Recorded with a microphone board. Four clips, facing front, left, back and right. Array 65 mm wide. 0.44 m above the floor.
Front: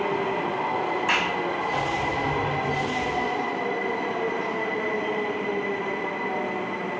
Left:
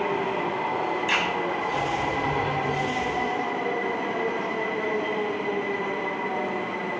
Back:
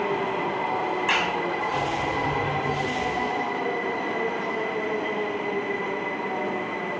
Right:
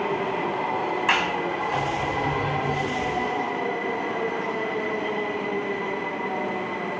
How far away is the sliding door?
About 8 m.